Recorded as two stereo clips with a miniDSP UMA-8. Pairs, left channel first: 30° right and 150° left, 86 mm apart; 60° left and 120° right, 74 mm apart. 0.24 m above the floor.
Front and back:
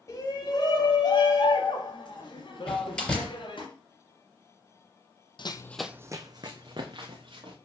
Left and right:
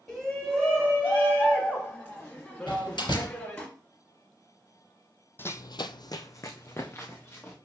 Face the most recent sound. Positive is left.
turn(degrees=125)